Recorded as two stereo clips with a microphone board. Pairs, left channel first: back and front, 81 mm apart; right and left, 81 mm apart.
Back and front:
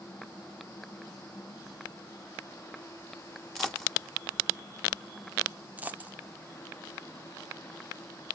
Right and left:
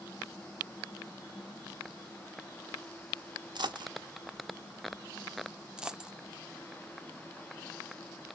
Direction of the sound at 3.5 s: 90° left.